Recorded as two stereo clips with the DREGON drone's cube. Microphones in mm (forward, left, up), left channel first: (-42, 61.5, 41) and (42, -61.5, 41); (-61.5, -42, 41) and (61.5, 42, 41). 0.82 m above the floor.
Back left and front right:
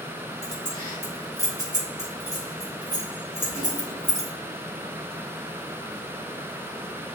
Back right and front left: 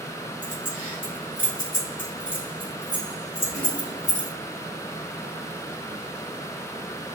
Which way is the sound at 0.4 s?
175° right.